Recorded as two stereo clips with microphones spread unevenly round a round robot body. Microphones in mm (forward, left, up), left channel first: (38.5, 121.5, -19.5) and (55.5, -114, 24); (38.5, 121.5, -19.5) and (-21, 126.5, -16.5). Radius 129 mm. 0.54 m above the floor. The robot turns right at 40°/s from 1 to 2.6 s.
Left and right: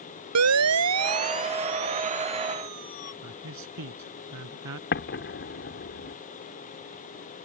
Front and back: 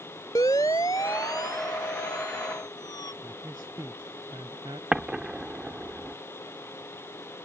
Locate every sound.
0.3 s a siren: 75° right; by 3.1 s 10° right
3.2 s a man speaking: 115° right
4.9 s an explosion: 100° left